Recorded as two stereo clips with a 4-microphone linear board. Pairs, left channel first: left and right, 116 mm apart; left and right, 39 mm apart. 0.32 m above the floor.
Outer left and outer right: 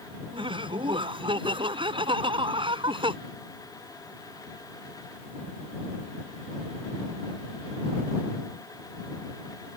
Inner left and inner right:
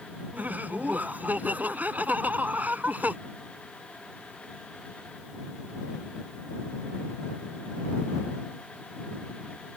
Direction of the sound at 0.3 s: 50° right (ahead or behind).